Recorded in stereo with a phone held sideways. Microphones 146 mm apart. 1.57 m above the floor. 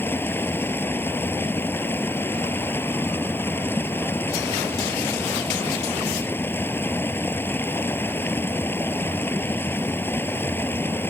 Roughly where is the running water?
Centre.